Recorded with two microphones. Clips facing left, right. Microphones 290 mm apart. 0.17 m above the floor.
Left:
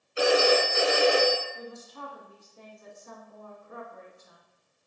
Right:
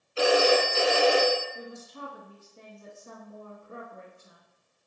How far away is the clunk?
I don't hear a clunk.